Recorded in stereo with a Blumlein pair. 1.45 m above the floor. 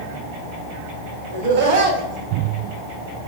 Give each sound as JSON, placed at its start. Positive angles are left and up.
{"t": 1.3, "sound": "laughter", "azimuth_deg": -50, "distance_m": 1.6}